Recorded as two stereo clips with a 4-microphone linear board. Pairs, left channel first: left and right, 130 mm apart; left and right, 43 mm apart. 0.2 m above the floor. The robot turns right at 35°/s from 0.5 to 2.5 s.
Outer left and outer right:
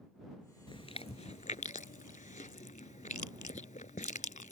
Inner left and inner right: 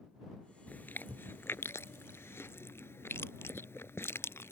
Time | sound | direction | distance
0.7 | chewing | 40° left (ahead or behind) | ?